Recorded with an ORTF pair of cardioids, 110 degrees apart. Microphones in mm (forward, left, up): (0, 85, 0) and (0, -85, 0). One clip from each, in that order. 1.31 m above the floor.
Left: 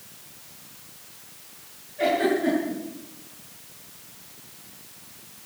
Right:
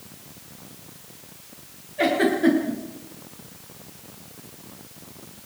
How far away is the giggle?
About 8.5 m.